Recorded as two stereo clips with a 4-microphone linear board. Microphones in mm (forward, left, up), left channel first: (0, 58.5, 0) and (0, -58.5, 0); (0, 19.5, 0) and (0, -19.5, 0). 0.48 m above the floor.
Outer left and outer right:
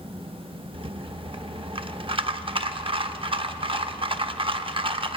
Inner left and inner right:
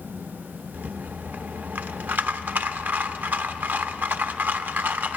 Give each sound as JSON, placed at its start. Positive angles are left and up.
{"t": 0.7, "sound": "a rattle", "side_deg": -50, "distance_m": 0.5}